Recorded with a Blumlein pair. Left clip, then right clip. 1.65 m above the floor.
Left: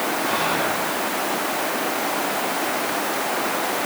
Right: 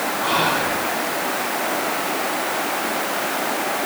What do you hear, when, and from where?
0.2 s whispering: 70° right, 5.5 m